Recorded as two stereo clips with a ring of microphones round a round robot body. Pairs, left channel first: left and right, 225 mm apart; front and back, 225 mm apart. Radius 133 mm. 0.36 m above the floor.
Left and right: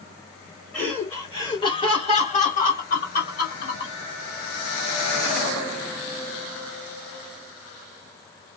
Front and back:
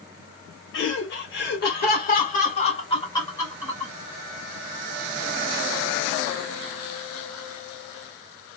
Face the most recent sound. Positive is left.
turn(degrees=85)